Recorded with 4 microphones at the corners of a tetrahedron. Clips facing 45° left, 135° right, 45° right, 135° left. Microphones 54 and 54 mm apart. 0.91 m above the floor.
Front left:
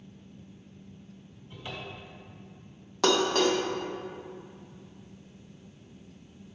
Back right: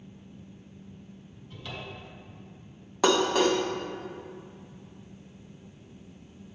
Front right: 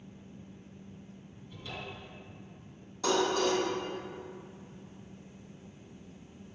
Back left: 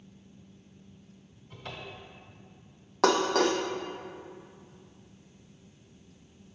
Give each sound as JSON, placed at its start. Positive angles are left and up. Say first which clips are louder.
{"t": 1.5, "sound": "a cupboard door", "louder": "even, even", "azimuth_deg": 105, "distance_m": 1.3}
{"t": 3.0, "sound": "dishes clattering", "louder": "back right 1 dB, back left 4 dB", "azimuth_deg": 145, "distance_m": 0.5}